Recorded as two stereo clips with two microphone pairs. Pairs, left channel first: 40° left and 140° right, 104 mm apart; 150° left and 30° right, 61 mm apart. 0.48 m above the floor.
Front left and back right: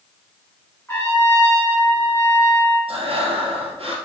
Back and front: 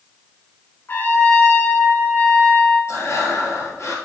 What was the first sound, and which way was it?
A trumpet, 105° left.